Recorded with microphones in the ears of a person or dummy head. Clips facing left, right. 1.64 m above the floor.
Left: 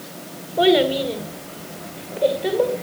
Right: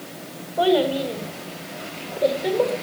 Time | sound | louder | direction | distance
0.6 | a child speaking | left 3 dB | 20° left (ahead or behind) | 1.6 m